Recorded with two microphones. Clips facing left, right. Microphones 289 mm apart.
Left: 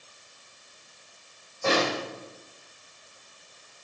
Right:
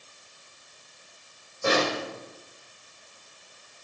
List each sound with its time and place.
1.6 s a snare drum: 15° right (ahead or behind), 2.5 m